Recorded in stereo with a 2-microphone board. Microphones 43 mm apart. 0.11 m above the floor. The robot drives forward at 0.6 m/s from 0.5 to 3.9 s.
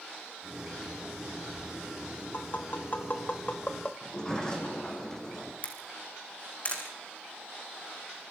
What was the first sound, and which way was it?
Tapping, 45° left (ahead or behind).